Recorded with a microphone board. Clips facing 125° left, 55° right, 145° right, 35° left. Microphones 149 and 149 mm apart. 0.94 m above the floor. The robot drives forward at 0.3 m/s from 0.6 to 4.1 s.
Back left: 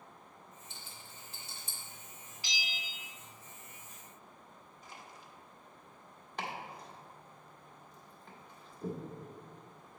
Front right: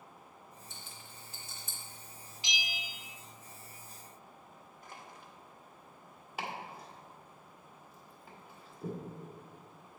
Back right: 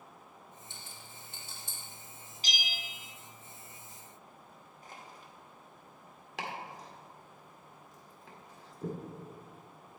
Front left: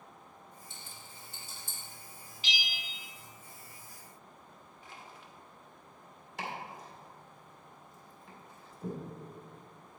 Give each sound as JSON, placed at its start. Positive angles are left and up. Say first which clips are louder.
{"t": 0.7, "sound": "a rattle", "louder": "front right 1 dB, even", "azimuth_deg": -175, "distance_m": 1.8}
{"t": 2.4, "sound": "a bell", "louder": "front right 2 dB, even", "azimuth_deg": -115, "distance_m": 0.6}
{"t": 4.8, "sound": "crushing", "louder": "front right 1 dB, back right 1 dB", "azimuth_deg": -95, "distance_m": 1.2}
{"t": 6.4, "sound": "chopping", "louder": "even, even", "azimuth_deg": -140, "distance_m": 1.7}